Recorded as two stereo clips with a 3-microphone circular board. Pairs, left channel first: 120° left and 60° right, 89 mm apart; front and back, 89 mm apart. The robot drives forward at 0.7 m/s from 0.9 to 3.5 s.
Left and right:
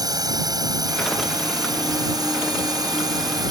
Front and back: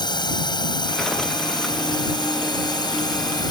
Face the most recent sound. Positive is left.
turn(degrees=-25)